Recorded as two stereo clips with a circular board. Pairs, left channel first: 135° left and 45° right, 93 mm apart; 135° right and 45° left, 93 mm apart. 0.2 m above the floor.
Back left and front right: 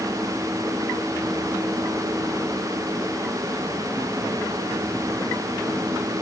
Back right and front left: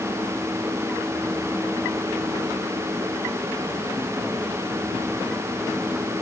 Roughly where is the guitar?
No guitar in this recording.